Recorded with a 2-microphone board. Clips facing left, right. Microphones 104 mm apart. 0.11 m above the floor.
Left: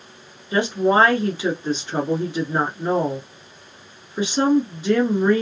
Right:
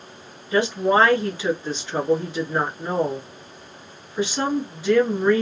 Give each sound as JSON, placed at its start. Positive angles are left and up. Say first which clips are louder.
{"t": 0.5, "sound": "a woman speaking", "louder": "left 1 dB", "side_deg": 20, "distance_m": 1.2}